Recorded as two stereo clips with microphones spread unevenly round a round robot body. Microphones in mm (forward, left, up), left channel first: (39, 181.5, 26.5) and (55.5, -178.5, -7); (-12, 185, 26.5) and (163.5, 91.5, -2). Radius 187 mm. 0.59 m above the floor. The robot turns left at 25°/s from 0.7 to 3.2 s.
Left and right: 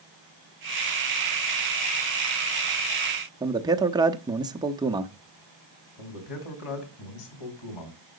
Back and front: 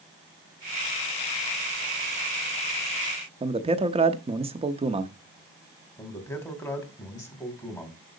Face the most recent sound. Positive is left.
turn(degrees=75)